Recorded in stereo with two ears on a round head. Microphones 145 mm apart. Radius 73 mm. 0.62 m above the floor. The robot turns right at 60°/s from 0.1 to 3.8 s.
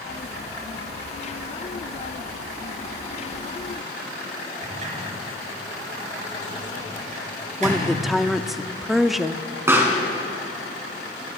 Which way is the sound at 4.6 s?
50° right (ahead or behind).